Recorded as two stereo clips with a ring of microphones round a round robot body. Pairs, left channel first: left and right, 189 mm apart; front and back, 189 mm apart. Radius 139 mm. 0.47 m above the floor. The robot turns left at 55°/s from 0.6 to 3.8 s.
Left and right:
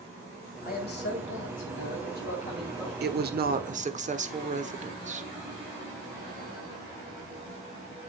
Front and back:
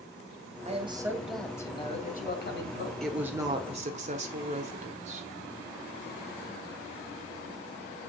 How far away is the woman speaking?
About 1.2 m.